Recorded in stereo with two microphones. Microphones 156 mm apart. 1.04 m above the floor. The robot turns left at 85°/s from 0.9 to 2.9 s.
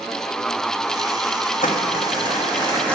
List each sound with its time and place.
1.6 s crumpling: 120° left, 1.5 m; by 3.0 s 5° left, 1.5 m